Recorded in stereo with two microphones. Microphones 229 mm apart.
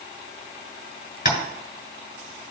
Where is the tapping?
45° left (ahead or behind), 1.2 m.